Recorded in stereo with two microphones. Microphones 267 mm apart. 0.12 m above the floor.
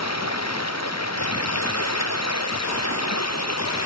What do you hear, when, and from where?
0.0 s running water: 75° left (ahead or behind)